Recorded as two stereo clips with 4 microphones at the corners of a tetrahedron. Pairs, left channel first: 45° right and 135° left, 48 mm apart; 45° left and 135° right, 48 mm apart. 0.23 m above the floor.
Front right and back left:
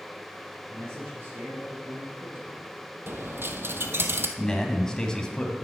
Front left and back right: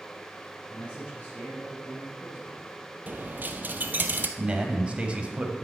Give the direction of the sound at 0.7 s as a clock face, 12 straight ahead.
8 o'clock.